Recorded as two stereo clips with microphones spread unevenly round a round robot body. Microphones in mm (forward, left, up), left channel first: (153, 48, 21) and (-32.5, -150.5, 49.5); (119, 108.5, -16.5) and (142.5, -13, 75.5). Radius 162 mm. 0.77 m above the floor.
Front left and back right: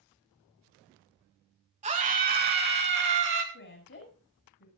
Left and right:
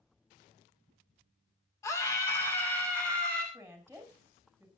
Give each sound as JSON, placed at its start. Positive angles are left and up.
{"t": 1.8, "sound": "a scream", "azimuth_deg": 155, "distance_m": 1.8}
{"t": 3.5, "sound": "a woman speaking", "azimuth_deg": 5, "distance_m": 5.5}